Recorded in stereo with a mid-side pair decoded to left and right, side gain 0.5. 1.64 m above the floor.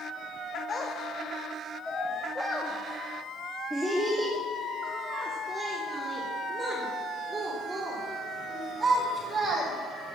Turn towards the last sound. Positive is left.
turn(degrees=-40)